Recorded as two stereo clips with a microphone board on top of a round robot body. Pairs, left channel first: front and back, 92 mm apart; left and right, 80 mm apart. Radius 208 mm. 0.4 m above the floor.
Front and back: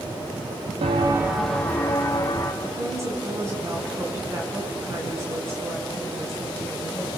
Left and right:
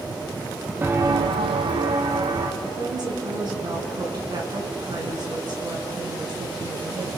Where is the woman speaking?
120° right, 6 m.